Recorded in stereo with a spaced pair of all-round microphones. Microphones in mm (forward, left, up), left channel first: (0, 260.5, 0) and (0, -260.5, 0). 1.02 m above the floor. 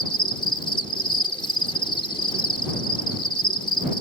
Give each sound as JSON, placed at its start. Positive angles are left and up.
{"t": 0.0, "sound": "an insect", "side_deg": 10}